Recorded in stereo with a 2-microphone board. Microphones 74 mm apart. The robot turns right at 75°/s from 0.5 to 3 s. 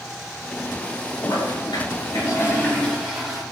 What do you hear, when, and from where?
1.2 s a toilet flushing: 55° left, 6 m; by 3.4 s 170° right, 6 m